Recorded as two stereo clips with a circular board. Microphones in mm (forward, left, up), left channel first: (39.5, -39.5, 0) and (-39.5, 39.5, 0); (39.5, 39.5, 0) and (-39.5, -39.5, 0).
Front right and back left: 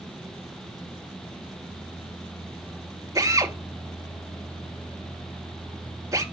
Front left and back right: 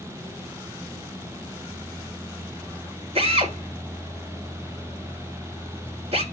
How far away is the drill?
About 6 m.